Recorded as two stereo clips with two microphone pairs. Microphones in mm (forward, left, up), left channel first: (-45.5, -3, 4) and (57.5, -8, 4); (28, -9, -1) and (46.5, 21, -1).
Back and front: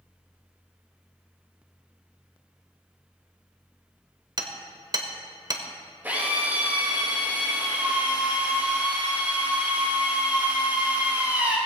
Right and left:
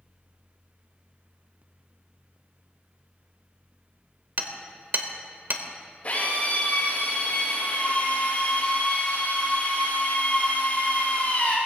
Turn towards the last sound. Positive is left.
turn(degrees=-75)